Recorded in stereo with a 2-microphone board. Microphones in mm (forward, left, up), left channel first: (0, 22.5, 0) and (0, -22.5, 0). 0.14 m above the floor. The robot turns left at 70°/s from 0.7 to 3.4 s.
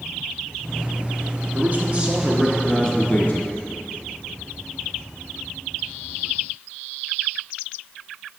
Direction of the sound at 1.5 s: 110° right.